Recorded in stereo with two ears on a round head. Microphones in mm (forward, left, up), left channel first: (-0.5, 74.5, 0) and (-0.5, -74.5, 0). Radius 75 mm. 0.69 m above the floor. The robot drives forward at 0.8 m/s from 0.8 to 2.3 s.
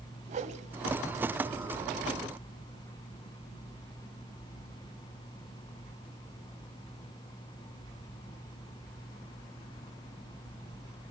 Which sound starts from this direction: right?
A whoosh, at 0.3 s.